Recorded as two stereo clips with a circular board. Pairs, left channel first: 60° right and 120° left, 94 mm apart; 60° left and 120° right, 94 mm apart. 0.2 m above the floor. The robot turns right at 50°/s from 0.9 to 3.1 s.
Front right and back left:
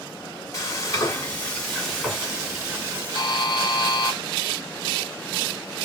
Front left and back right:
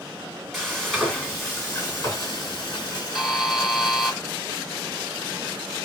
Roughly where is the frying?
Ahead right.